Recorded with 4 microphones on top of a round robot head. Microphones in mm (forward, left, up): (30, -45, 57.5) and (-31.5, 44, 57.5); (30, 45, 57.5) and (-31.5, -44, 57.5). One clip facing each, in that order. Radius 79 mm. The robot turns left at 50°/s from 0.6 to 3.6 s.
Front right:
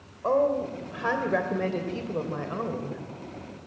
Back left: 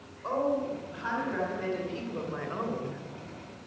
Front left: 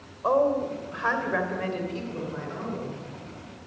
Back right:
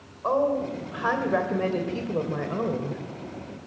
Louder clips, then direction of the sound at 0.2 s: Front right 5 dB, front left 1 dB; 25° right.